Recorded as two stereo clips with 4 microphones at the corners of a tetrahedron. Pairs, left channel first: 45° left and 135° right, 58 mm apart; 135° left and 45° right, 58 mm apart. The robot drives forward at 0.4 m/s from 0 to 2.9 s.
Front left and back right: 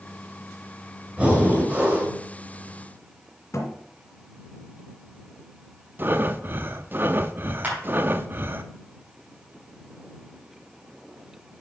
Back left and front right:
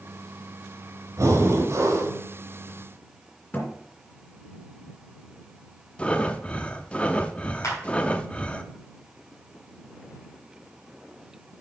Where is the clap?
165° left, 4.5 m.